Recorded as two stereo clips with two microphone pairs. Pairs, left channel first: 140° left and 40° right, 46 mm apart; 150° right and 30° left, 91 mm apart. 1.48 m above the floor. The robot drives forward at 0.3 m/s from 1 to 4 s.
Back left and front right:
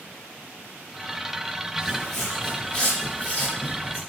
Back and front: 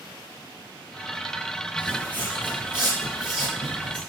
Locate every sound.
1.8 s footsteps: 100° right, 1.5 m; by 4.0 s 170° left, 2 m